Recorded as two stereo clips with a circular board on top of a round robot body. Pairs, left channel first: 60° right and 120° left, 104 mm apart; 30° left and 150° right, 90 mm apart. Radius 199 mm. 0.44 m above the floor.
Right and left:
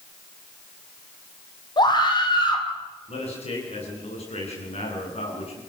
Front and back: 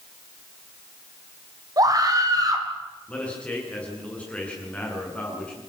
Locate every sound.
1.8 s a scream: 105° right, 4.5 m
3.1 s a man speaking: 45° right, 9 m